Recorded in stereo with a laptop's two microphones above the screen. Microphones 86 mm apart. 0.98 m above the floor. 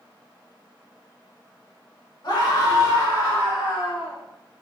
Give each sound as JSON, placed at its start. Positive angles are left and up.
{"t": 2.2, "sound": "a scream", "side_deg": 55, "distance_m": 1.4}